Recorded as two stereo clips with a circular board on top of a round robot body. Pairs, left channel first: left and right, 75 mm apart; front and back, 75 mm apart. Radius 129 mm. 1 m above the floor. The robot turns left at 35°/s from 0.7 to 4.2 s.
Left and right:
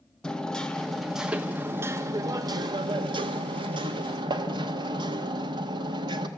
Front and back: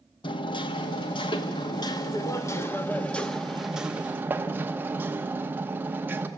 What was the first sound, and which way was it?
Hammering, 10° left.